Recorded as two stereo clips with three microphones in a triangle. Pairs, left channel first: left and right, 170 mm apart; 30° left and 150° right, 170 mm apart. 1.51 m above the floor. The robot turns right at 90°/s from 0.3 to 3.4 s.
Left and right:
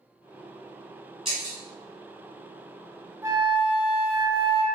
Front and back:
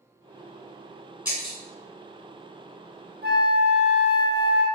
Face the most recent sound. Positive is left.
turn(degrees=-150)